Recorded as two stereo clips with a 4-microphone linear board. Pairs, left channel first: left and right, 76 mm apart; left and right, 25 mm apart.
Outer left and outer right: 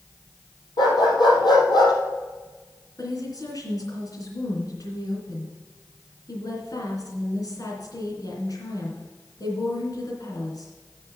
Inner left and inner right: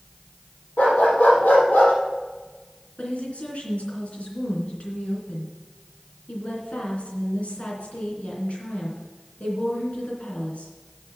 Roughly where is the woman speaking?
Left.